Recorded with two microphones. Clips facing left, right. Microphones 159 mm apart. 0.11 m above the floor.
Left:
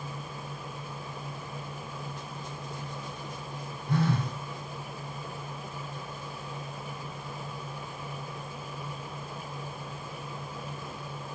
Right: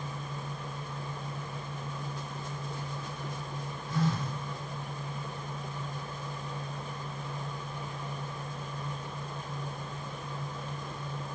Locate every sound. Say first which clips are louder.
3.9 s a phone buzzing: left 3 dB; 65° left (ahead or behind), 1.0 m